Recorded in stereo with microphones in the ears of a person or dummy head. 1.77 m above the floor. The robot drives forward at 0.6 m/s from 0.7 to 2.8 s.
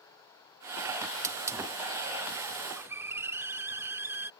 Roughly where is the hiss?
Centre.